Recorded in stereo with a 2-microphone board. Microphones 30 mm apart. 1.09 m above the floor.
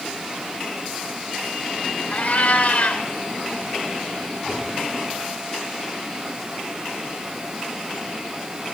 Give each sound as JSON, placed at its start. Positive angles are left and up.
{"t": 2.1, "sound": "a cat meowing", "side_deg": 55, "distance_m": 1.1}